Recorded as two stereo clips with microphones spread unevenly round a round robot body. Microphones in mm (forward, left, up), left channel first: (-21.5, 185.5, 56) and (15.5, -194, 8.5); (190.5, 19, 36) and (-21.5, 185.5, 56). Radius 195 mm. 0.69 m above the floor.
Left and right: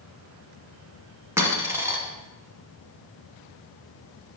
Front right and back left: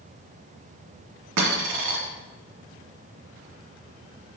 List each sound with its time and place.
1.4 s a dropped coin: 170° right, 1.9 m